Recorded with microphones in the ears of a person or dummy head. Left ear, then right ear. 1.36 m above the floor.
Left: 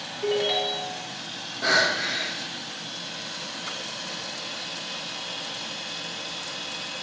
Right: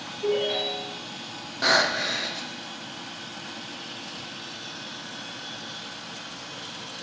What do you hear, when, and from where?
0.2 s a ringtone: 60° left (ahead or behind), 0.8 m
1.6 s breathing: 25° right (ahead or behind), 0.5 m